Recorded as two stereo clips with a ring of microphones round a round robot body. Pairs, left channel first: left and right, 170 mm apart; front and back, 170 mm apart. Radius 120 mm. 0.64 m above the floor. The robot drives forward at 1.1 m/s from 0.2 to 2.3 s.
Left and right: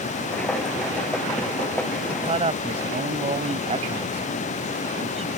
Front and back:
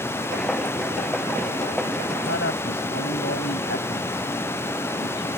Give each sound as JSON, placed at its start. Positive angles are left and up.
{"t": 2.1, "sound": "a man speaking", "azimuth_deg": -40}